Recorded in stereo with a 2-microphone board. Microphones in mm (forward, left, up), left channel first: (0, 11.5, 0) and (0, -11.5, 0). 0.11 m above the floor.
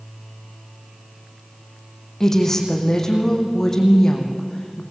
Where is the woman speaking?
25° left (ahead or behind), 4 m.